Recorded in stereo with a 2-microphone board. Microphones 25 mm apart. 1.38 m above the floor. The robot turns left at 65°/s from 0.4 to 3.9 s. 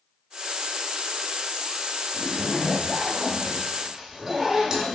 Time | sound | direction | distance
2.1 | a zipper | 80° left | 0.9 m